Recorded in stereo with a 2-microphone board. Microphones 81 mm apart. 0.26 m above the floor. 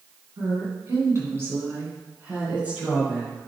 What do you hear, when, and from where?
0.4 s a woman speaking: 50° right (ahead or behind), 2 m; by 3.4 s 15° right (ahead or behind), 3.5 m